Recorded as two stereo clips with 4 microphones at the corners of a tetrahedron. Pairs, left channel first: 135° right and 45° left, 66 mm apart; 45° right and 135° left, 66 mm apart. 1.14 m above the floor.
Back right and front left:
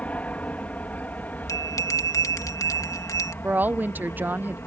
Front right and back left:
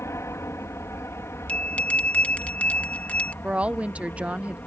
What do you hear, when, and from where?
0.0 s an aircraft: 75° right; by 4.7 s 95° right
1.5 s a bell: 110° right
3.4 s a woman speaking: 80° left